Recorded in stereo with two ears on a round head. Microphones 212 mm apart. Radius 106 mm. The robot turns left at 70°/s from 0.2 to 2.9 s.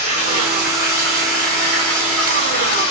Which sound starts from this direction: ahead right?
Running water, at 0.0 s.